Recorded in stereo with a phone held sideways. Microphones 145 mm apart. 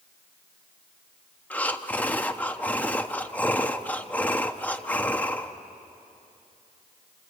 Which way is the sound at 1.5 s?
10° left (ahead or behind).